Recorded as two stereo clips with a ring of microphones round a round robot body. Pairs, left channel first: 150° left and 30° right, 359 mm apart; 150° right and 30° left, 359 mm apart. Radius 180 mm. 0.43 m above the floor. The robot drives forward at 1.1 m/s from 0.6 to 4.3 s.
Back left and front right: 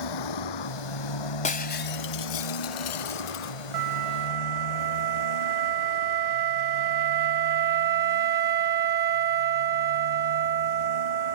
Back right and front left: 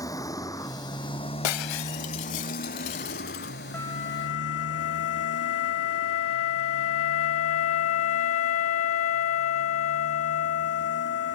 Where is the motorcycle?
130° left; by 11.4 s 150° left.